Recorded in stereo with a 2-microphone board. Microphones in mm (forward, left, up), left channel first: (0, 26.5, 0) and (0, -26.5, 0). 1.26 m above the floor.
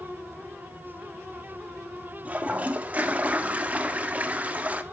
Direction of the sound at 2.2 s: 25° right (ahead or behind).